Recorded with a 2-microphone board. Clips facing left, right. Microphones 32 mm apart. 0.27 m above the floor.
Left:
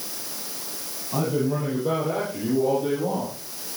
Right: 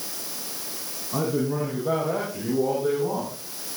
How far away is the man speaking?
About 9 m.